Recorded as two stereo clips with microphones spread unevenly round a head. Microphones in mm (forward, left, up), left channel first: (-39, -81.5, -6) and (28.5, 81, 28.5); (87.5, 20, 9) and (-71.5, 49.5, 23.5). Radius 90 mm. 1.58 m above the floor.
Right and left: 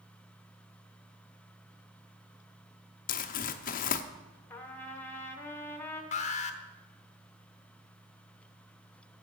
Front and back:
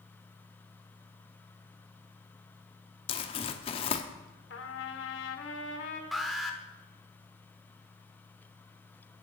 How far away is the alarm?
About 0.9 m.